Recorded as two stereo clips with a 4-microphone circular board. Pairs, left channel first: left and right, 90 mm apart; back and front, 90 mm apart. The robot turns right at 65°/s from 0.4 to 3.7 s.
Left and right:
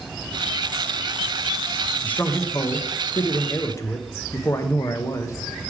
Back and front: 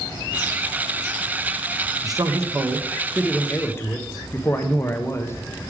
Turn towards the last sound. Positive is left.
turn(degrees=130)